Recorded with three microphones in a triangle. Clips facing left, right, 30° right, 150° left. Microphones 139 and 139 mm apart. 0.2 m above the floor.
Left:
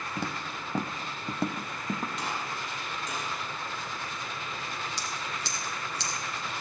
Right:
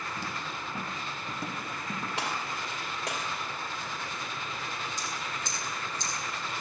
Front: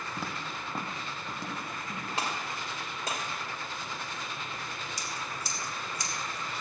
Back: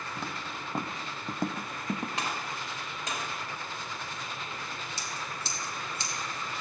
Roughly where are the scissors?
Left.